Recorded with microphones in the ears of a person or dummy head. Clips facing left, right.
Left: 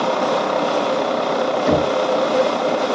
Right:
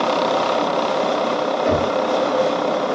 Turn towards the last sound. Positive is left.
turn(degrees=45)  # may be behind; listen again after turning